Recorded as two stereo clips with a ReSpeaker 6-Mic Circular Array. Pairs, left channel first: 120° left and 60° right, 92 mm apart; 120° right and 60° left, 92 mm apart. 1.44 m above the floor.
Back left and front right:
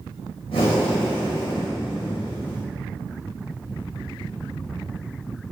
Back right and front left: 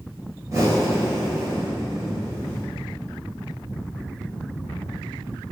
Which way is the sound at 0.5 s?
115° left.